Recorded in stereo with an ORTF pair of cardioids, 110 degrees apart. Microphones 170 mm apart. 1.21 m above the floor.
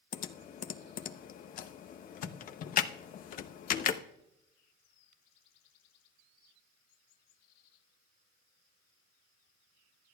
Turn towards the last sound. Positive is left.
turn(degrees=55)